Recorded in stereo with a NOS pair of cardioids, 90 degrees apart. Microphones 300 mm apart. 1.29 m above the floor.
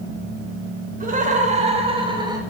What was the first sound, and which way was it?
Laughter, 25° right.